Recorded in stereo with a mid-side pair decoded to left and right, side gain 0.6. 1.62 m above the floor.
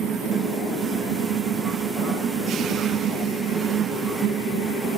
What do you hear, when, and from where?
0.0 s a fan: 50° right, 1.6 m